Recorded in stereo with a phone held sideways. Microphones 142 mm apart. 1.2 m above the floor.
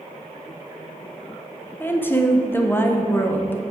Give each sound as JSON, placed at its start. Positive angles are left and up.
{"t": 1.8, "sound": "a woman speaking", "side_deg": 15, "distance_m": 0.9}